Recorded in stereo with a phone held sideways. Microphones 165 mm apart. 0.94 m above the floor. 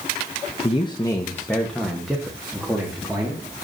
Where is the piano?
No piano in this recording.